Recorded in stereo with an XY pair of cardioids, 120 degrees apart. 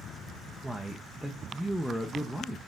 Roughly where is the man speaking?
Ahead.